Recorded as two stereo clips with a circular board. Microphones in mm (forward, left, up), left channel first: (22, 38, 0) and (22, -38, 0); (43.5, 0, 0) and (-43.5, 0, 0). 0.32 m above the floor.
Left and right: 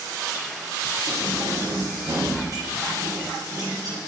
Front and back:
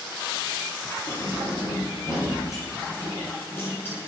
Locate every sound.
1.1 s keys jangling: 40° right, 4 m; by 4.0 s 65° right, 2.5 m